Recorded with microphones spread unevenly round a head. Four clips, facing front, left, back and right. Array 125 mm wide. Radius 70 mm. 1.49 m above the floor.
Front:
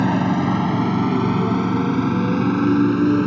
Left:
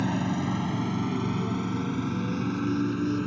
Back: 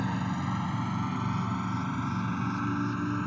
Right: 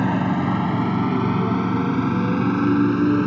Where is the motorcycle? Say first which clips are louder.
Right 7 dB, front 13 dB; 20° right; by 3.3 s 30° right.